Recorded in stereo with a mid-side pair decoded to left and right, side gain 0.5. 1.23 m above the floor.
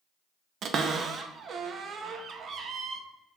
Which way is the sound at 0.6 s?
50° right.